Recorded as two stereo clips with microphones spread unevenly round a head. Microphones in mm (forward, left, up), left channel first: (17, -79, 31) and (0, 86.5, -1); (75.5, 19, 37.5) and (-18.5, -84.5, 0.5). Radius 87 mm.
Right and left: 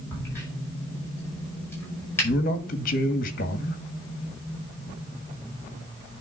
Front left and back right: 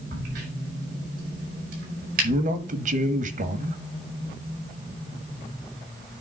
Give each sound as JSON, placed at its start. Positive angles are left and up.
{"t": 0.1, "sound": "a crack", "azimuth_deg": -165, "distance_m": 5.0}
{"t": 2.2, "sound": "a man speaking", "azimuth_deg": -125, "distance_m": 1.4}